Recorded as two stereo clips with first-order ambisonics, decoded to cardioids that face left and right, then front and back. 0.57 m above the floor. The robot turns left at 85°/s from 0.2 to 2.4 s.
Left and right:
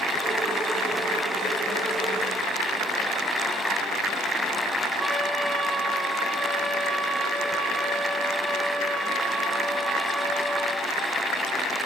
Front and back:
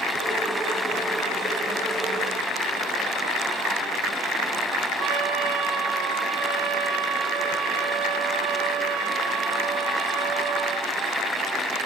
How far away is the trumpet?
About 2.5 m.